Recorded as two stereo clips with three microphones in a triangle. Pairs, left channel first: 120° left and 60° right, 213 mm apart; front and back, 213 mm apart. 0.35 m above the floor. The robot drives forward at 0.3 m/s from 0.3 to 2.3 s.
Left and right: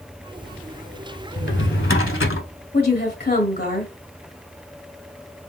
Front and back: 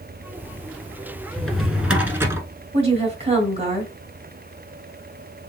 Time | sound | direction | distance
1.4 | a drawer | 85° left | 0.9 m
2.7 | a woman speaking | 130° left | 1.7 m